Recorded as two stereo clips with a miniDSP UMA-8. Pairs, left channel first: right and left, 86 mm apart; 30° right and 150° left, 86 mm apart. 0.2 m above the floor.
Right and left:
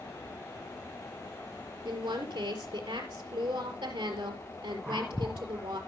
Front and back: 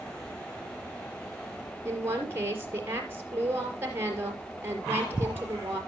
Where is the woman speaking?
90° left, 4.5 m.